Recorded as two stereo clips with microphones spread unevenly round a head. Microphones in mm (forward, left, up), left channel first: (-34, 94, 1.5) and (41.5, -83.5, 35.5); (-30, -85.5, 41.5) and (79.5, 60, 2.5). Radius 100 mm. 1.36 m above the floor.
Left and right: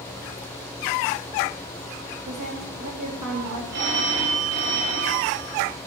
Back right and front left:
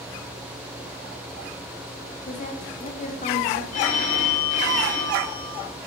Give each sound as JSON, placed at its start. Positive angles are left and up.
{"t": 2.3, "sound": "a woman speaking", "azimuth_deg": -75, "distance_m": 2.0}
{"t": 3.7, "sound": "a phone ringing", "azimuth_deg": -80, "distance_m": 2.5}